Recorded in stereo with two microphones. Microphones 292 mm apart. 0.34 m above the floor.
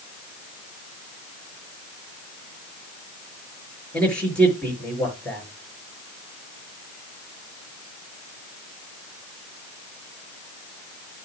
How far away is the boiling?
No boiling in this recording.